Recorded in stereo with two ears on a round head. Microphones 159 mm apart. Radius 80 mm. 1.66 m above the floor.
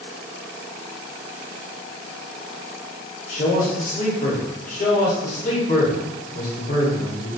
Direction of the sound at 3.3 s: 45° left (ahead or behind).